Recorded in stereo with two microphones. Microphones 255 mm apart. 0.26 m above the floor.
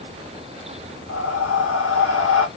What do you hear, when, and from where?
1.1 s breathing: 70° left (ahead or behind), 0.9 m